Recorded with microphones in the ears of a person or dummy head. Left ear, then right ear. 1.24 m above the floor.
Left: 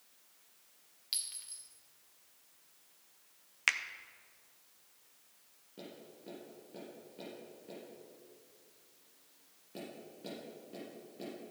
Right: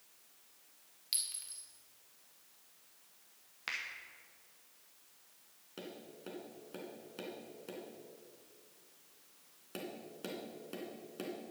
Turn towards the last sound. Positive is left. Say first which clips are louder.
# right 2 dB
turn(degrees=-45)  # may be behind; listen again after turning